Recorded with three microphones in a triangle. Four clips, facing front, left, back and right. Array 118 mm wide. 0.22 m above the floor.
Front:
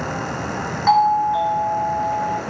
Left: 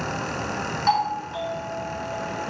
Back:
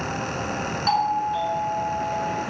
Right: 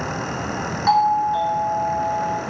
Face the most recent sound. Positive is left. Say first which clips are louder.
# right 7 dB, front 7 dB
turn(degrees=-25)